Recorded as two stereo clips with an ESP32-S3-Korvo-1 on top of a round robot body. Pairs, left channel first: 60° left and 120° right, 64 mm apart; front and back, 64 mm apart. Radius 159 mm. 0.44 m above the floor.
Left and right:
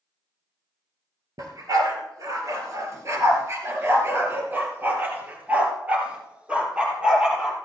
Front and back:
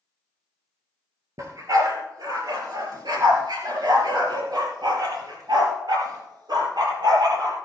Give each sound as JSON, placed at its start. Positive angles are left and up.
{"t": 1.4, "sound": "a dog barking", "azimuth_deg": -145, "distance_m": 3.0}